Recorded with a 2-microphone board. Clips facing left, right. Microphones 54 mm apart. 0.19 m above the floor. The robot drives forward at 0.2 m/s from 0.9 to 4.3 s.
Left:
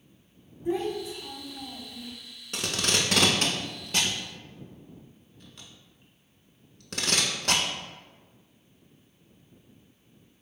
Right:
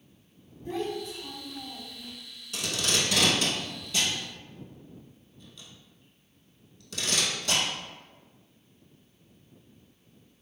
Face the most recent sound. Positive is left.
turn(degrees=60)  # may be behind; listen again after turning